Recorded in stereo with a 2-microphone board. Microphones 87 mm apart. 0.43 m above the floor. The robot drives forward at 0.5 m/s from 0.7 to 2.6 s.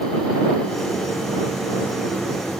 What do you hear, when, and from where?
Only background noise.